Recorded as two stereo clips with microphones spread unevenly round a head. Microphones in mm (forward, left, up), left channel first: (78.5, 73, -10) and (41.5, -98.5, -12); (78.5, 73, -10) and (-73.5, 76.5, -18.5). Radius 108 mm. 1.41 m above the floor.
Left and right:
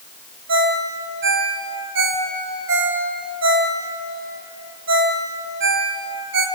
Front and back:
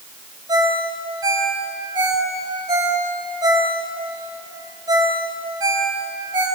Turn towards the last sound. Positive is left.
turn(degrees=-110)